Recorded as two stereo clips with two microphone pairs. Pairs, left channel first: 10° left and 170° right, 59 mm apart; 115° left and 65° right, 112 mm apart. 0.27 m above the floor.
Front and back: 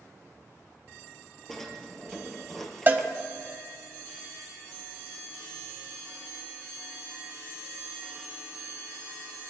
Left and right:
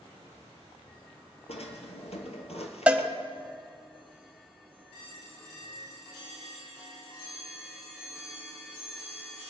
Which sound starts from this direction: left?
A drawer, at 1.5 s.